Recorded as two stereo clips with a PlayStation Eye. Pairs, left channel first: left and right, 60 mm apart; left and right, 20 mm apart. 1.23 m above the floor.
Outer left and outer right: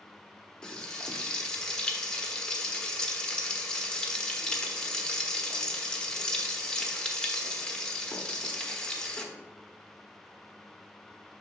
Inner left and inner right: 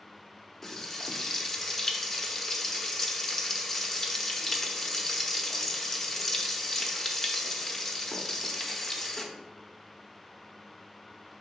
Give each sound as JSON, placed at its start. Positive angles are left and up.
{"t": 0.6, "sound": "frying", "side_deg": 15, "distance_m": 1.0}